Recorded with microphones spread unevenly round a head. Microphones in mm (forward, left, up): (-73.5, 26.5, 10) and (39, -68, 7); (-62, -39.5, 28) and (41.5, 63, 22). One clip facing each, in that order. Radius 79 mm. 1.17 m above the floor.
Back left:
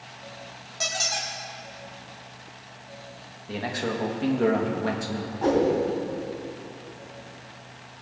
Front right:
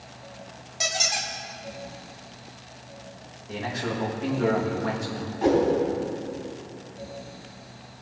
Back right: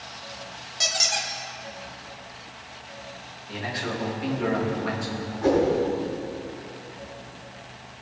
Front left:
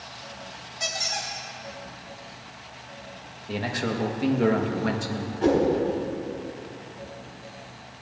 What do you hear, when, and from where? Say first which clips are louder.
0.8 s a squeak: front right 1 dB, back right 2 dB; 115° right, 1.3 m
3.5 s a man speaking: back left 1 dB, front left 3 dB; 80° left, 1.3 m
5.4 s a whoosh: front right 1 dB, even; 45° left, 3 m